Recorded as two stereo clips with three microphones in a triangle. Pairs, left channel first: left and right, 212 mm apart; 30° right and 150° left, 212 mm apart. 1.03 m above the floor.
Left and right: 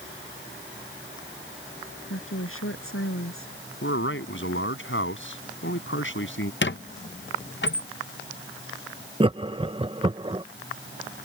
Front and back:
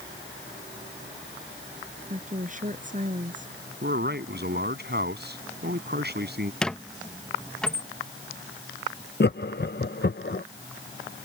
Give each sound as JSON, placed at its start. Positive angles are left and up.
{"t": 2.1, "sound": "a woman speaking", "azimuth_deg": 100}
{"t": 3.8, "sound": "a man speaking", "azimuth_deg": 110}
{"t": 6.6, "sound": "a squeak", "azimuth_deg": 55}
{"t": 9.2, "sound": "laughter", "azimuth_deg": -30}